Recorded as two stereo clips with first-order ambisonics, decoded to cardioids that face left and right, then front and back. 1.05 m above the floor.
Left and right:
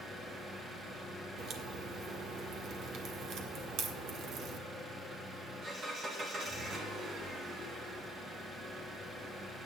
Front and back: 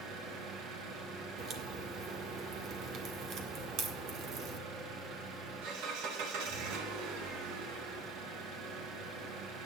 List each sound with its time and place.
0.0 s an engine running: 155° right, 2 m
1.4 s a crack: 135° right, 1.5 m